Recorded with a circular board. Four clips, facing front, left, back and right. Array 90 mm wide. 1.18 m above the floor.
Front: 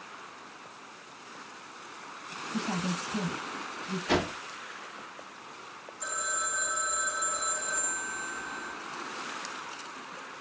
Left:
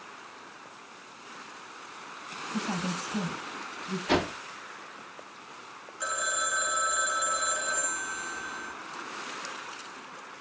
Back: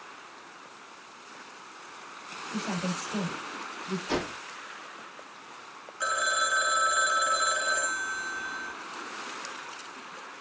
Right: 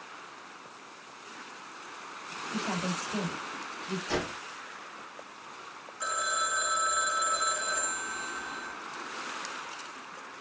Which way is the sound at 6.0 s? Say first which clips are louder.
Even, back 7 dB; straight behind.